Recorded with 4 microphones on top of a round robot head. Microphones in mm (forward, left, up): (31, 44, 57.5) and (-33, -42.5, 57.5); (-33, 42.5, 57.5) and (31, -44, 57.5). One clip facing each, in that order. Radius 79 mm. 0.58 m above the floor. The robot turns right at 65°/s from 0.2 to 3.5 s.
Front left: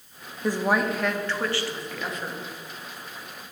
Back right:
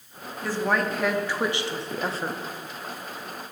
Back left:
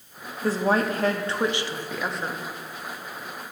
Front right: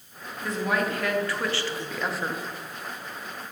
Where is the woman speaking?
110° left, 0.6 m; by 2.4 s 125° right, 0.6 m.